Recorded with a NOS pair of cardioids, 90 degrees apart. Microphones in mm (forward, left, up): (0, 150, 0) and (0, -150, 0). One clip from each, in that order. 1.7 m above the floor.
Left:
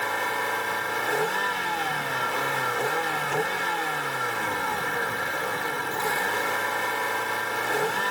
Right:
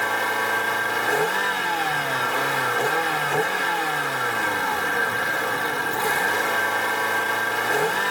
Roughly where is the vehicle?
Ahead right.